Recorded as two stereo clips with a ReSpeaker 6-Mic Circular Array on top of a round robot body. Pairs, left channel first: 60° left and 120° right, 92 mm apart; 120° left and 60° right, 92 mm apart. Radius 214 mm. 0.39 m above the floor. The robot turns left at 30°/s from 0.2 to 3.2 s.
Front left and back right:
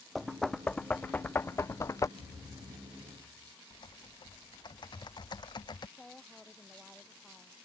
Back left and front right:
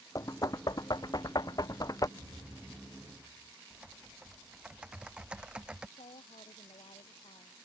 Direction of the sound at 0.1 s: 150° left.